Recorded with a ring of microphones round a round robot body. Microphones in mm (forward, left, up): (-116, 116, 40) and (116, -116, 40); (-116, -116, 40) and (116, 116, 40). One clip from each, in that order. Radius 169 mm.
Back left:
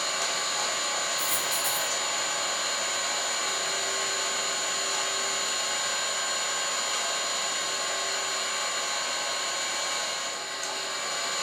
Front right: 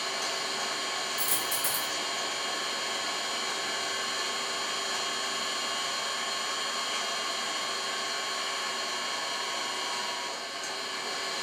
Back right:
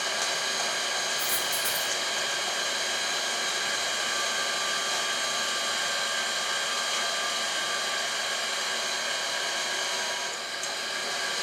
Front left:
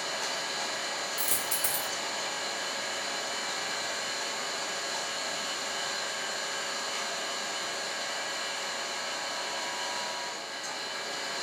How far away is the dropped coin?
About 1.2 m.